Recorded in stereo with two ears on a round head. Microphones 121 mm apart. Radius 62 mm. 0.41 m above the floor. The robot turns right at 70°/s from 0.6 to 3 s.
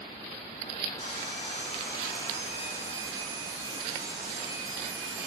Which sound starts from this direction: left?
Sawing, at 1.0 s.